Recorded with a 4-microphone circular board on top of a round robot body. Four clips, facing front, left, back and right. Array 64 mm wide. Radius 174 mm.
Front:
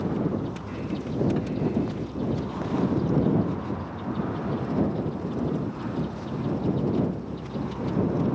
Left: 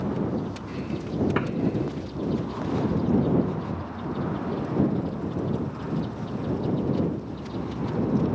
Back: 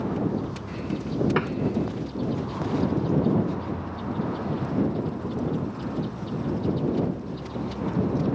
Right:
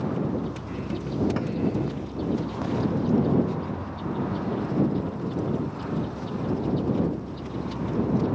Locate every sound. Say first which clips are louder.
1.4 s tapping: left 2 dB, back 4 dB; 145° left